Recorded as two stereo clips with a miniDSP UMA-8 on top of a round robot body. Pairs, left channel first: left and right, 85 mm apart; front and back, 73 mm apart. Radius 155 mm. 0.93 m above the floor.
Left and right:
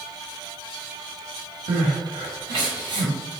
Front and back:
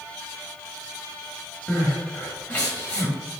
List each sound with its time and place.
1.7 s crying: 70° right, 1.5 m